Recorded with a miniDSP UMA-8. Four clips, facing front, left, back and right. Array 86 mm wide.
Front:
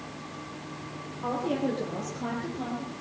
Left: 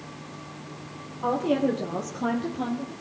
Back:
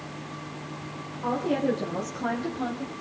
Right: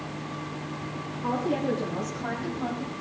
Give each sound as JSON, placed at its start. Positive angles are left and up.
{"t": 1.2, "sound": "a woman speaking", "azimuth_deg": 90, "distance_m": 5.0}